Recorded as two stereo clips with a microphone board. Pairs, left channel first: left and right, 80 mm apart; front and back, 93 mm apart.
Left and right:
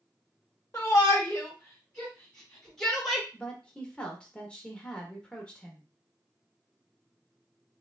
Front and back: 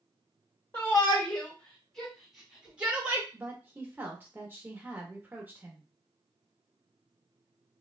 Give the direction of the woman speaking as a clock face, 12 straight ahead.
7 o'clock.